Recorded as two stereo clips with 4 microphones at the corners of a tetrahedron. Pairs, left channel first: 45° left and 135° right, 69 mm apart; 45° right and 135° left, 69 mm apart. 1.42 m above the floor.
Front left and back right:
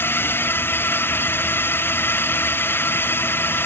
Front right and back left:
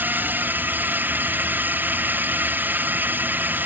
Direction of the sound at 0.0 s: 85° left.